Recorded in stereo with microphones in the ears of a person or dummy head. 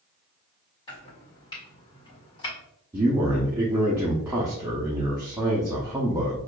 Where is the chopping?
25° left (ahead or behind), 1.6 m.